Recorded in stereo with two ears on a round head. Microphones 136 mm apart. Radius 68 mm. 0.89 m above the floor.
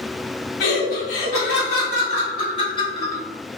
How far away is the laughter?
About 1.4 m.